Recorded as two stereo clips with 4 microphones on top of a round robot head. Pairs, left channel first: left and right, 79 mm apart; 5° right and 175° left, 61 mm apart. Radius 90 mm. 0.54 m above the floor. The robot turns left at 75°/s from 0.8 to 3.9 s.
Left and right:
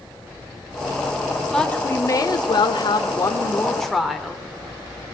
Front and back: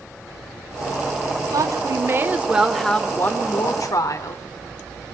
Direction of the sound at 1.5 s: 175° left.